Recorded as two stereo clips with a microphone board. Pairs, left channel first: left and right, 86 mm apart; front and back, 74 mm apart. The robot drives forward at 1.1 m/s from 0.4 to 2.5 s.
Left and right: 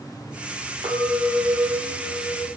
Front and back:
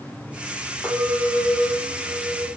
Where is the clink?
85° right, 3 m; by 2.5 s 115° right, 3.5 m.